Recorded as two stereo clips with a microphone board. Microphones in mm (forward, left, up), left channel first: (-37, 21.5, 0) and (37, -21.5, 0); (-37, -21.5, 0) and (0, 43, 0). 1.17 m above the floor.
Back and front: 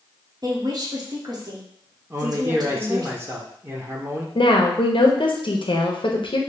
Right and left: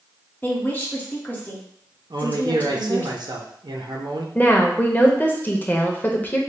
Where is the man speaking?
35° left, 0.7 m.